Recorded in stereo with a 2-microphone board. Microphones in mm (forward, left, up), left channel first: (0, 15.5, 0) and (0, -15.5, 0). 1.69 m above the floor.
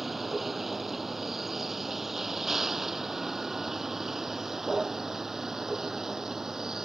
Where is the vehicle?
5° right (ahead or behind); by 6.9 s 15° right (ahead or behind).